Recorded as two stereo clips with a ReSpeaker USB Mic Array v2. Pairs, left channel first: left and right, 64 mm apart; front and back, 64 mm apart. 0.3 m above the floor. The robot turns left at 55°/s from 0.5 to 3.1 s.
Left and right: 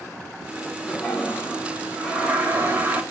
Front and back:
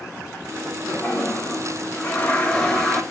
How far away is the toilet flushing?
About 0.7 m.